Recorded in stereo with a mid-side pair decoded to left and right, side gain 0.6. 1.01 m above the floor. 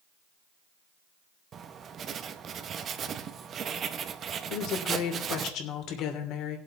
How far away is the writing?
About 0.9 m.